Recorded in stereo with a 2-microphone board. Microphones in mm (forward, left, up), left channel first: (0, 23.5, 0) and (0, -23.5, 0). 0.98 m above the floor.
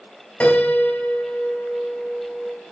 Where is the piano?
30° left (ahead or behind), 2.5 m.